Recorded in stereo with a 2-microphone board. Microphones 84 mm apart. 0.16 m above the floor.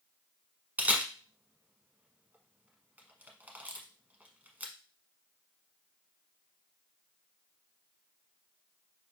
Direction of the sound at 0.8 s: 20° right (ahead or behind).